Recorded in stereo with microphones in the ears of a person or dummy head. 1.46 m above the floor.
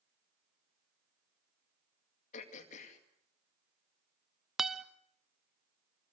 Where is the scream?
I don't hear a scream.